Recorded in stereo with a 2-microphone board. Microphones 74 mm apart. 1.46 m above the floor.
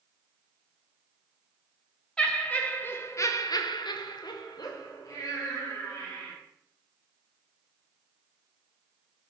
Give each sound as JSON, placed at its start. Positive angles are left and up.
{"t": 2.2, "sound": "laughter", "side_deg": 10, "distance_m": 1.4}